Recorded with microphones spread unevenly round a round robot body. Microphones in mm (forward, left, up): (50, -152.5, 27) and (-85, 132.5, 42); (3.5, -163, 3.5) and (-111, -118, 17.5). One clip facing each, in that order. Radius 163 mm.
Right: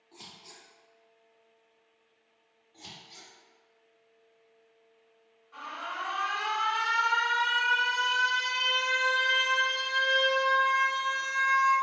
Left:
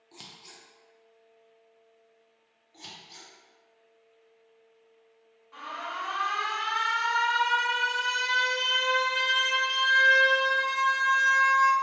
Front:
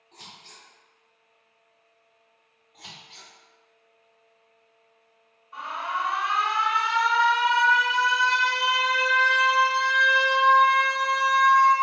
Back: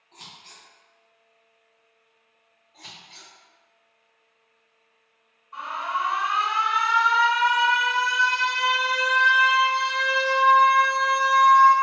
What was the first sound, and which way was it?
Scissors, 55° left.